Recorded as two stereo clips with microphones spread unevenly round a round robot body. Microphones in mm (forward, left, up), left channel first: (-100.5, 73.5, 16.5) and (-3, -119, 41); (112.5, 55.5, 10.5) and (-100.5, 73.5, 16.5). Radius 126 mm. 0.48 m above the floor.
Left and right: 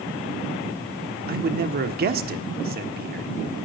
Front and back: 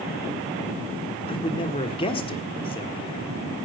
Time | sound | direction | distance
1.3 | a man speaking | 50° right | 1.5 m